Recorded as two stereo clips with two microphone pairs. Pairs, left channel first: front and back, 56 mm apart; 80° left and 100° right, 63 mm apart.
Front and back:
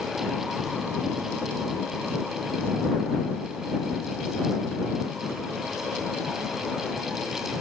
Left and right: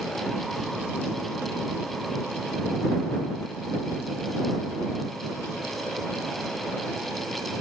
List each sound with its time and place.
Only background noise.